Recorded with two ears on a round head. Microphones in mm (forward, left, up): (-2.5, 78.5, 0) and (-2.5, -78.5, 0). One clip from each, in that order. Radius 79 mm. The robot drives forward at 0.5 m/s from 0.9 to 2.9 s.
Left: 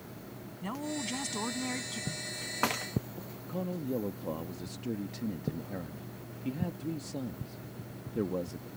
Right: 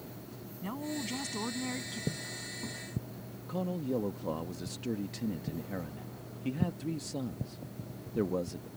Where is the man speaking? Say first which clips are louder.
Right 1 dB; 15° right (ahead or behind).